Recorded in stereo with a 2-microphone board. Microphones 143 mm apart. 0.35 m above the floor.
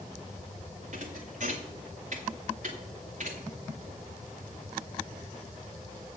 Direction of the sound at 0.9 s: 60° right (ahead or behind).